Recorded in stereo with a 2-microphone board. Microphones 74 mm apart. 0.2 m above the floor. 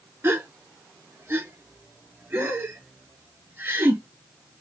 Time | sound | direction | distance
0.2 | a gasp | 30° right (ahead or behind) | 0.7 m